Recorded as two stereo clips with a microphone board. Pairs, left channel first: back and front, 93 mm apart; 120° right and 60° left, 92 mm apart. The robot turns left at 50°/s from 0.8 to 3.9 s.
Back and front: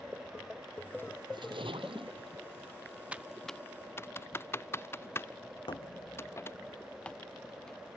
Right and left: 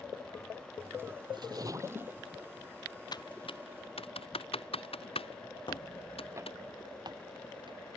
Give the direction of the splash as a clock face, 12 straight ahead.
11 o'clock.